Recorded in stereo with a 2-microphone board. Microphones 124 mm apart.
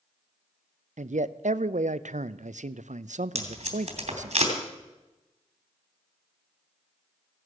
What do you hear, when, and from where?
1.0 s a man speaking: 80° right, 0.5 m
3.4 s tape being pulled: 60° right (ahead or behind), 3 m